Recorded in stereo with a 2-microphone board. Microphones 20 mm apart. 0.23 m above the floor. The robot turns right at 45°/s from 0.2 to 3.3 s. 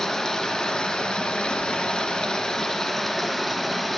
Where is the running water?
25° left, 2.5 m; by 4.0 s 165° left, 2.5 m.